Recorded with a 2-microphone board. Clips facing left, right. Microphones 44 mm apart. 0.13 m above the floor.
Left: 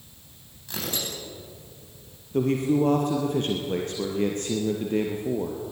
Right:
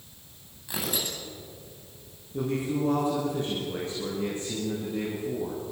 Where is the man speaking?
65° left (ahead or behind), 3.5 m.